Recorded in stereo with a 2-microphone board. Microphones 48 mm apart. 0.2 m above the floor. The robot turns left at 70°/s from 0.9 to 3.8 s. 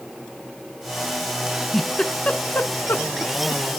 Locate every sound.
1.5 s a giggle: 20° right (ahead or behind), 0.5 m; by 3.6 s 45° left (ahead or behind), 0.5 m